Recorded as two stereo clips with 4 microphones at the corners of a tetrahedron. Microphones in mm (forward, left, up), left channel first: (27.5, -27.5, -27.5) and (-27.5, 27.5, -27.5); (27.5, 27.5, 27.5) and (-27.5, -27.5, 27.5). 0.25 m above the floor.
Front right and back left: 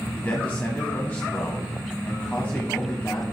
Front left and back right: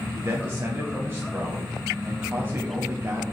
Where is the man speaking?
95° right, 1.2 m.